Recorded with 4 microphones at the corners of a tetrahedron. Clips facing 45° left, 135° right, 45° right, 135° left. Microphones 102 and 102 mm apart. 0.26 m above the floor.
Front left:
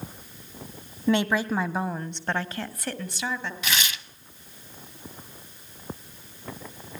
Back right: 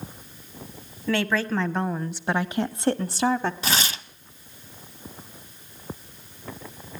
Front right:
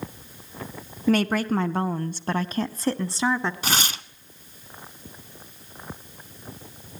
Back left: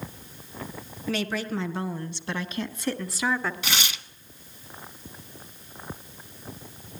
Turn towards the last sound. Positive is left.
turn(degrees=-85)